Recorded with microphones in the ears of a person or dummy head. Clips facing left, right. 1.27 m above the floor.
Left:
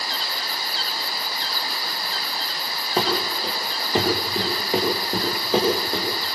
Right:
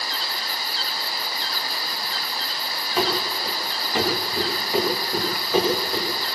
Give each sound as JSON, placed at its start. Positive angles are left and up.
{"t": 3.0, "sound": "running footsteps", "side_deg": 30, "distance_m": 6.5}